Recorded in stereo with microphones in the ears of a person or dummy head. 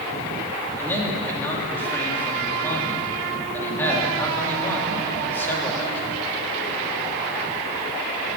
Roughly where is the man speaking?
Centre.